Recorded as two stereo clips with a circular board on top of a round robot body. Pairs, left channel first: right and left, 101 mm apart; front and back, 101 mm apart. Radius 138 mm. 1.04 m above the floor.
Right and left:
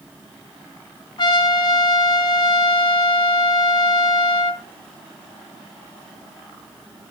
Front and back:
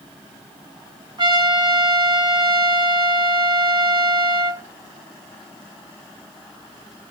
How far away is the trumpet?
About 3.5 m.